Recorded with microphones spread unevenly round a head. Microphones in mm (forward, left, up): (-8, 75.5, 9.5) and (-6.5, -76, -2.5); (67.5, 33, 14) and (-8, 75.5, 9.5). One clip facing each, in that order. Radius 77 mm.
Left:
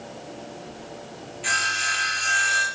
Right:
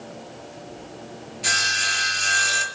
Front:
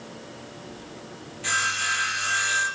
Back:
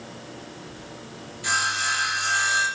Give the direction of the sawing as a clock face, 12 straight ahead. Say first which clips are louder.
Right 1 dB, back 1 dB; 4 o'clock.